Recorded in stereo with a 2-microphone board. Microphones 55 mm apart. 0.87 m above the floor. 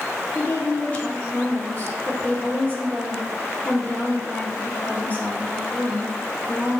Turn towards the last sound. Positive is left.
turn(degrees=25)  # may be behind; listen again after turning